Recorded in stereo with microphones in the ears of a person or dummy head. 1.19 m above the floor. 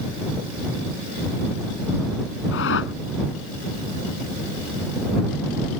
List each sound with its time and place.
2.5 s a whoosh: 85° left